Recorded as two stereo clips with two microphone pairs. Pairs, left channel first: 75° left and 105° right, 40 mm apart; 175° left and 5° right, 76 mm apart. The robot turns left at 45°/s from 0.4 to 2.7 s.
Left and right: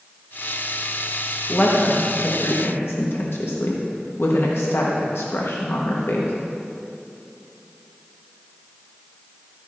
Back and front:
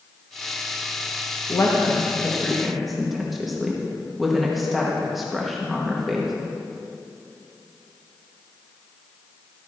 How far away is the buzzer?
I don't hear a buzzer.